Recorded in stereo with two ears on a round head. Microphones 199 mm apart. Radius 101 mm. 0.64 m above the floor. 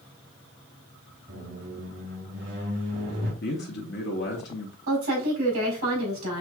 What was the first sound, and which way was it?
A squeak, 50° right (ahead or behind).